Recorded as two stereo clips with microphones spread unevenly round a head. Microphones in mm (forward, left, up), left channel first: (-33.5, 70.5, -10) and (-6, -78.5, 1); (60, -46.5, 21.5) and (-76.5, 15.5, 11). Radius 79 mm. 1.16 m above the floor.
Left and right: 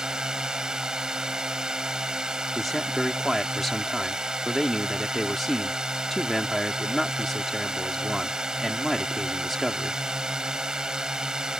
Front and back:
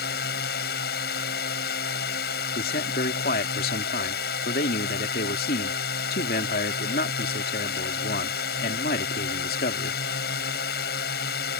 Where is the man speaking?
10° left.